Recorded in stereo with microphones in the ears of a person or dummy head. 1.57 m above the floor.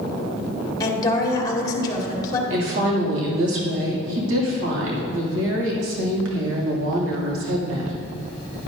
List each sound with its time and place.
0.8 s a woman speaking: 20° left (ahead or behind), 2.5 m
2.5 s a woman speaking: 80° right, 2.5 m